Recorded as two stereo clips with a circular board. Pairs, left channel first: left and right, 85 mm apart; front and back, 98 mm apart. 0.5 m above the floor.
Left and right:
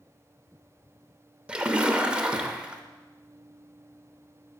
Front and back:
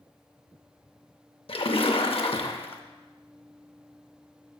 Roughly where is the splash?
Ahead.